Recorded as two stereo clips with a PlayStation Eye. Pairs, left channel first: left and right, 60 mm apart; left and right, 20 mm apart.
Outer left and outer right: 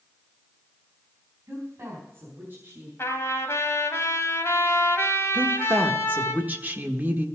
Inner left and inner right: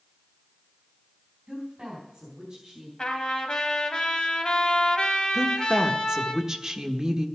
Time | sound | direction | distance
1.5 | a woman speaking | 45° right (ahead or behind) | 4 m
3.0 | a trumpet | 50° left (ahead or behind) | 1.7 m
5.3 | a woman speaking | 30° right (ahead or behind) | 1.3 m